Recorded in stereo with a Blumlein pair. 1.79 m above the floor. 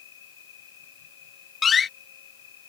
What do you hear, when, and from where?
0.0 s an insect: 60° left
1.6 s a door slam: 20° left